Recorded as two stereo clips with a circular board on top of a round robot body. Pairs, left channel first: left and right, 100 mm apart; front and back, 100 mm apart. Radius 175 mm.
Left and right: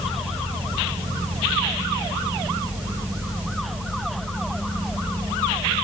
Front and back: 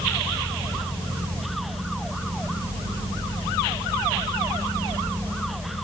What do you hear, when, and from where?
Only background noise.